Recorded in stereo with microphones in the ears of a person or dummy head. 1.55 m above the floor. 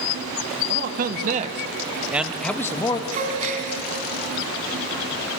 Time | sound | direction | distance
0.7 | a man speaking | 60° right (ahead or behind) | 2.5 m
3.1 | a gasp | 45° right (ahead or behind) | 3.5 m